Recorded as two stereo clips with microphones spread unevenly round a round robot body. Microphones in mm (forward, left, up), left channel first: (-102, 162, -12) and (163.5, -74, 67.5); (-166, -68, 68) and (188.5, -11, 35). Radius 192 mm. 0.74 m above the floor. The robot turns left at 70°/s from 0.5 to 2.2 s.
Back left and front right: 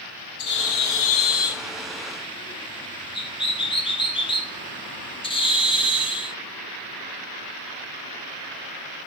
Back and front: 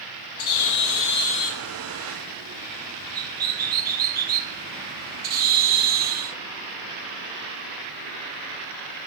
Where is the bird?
170° right, 0.8 m; by 6.4 s 70° left, 0.8 m.